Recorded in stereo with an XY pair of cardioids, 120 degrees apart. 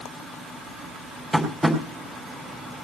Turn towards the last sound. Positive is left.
turn(degrees=-15)